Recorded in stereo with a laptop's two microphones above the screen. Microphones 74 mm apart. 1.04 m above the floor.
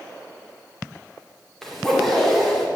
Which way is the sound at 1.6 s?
5° left (ahead or behind).